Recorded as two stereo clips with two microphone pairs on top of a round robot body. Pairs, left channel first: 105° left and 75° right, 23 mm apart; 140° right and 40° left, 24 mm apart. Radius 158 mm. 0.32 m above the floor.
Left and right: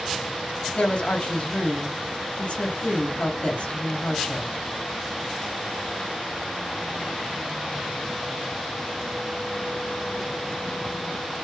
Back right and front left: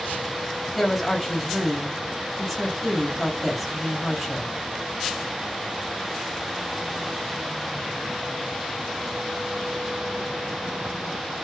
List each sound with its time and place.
0.8 s a woman speaking: 145° left, 1.7 m